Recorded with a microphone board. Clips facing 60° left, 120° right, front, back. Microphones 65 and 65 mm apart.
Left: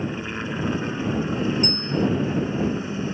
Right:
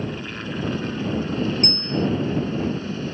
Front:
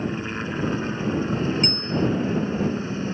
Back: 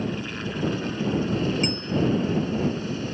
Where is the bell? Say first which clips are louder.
Even, front 1 dB; 95° right.